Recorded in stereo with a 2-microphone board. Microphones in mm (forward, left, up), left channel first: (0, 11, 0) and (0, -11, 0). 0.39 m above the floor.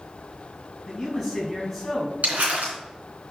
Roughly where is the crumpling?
Right.